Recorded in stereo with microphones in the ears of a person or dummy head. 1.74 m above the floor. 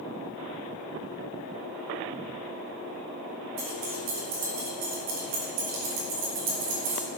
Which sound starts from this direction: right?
Keys jangling, at 3.6 s.